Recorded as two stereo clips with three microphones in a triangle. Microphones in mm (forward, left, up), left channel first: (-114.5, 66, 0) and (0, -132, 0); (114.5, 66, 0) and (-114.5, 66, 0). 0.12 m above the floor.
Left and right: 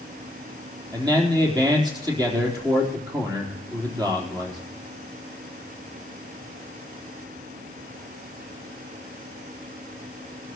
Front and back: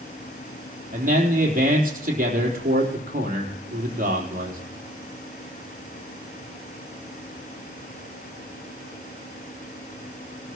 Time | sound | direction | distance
0.9 | a man speaking | 130° right | 3.5 m